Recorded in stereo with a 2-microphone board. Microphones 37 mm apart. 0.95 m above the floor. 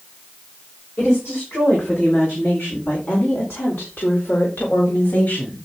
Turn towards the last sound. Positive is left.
turn(degrees=45)  # may be behind; listen again after turning